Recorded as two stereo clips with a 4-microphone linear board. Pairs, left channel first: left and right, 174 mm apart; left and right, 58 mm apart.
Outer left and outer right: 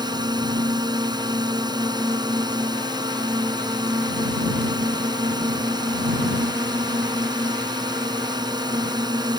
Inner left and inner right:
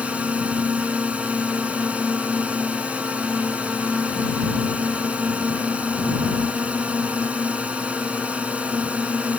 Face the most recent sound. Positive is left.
turn(degrees=-25)  # may be behind; listen again after turning